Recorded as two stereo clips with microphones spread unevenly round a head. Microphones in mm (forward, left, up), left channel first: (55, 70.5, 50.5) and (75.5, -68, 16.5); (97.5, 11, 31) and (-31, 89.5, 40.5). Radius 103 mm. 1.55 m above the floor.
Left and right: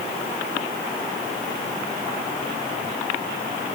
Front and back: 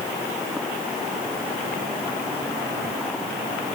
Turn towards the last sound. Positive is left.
No sound to turn to.